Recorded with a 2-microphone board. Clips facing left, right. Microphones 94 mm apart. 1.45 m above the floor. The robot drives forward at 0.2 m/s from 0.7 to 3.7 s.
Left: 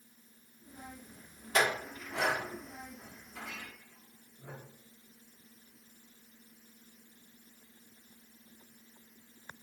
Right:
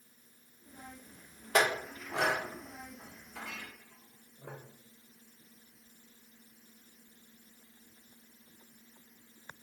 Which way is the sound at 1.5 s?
60° right (ahead or behind).